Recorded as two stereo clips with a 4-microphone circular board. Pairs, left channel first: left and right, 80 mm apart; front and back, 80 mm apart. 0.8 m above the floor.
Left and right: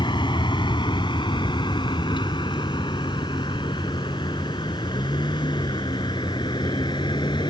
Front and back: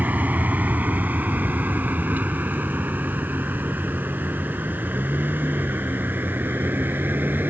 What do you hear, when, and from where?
0.0 s a vehicle: 105° left; by 7.5 s 110° left